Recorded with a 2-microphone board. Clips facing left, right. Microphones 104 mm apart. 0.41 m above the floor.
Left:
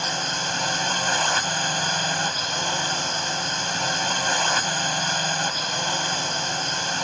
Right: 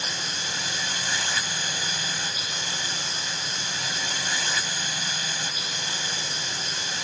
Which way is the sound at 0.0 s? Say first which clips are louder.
Left 7 dB; 50° left (ahead or behind).